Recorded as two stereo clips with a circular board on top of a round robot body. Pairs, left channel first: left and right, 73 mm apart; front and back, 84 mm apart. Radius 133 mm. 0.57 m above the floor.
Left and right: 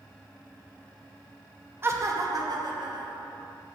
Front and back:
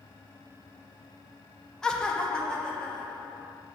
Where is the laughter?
75° right, 0.6 m; by 3.5 s 80° right, 1.7 m.